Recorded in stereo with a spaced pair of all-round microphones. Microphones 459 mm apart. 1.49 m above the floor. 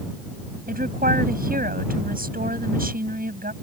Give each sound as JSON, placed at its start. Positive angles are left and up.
{"t": 0.7, "sound": "a woman speaking", "side_deg": -20}